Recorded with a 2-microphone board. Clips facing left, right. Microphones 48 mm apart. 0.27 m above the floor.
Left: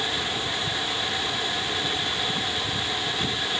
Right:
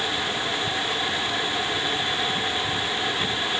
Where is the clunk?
No clunk in this recording.